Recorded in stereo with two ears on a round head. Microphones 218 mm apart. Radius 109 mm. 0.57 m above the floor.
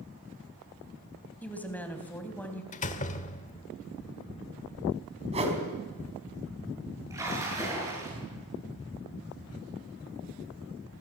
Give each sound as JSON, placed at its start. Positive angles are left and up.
{"t": 1.4, "sound": "a woman speaking", "side_deg": 5, "distance_m": 3.0}
{"t": 2.7, "sound": "a door slam", "side_deg": 30, "distance_m": 1.3}
{"t": 5.3, "sound": "a whoosh", "side_deg": -25, "distance_m": 4.0}
{"t": 7.1, "sound": "a splash", "side_deg": -15, "distance_m": 8.0}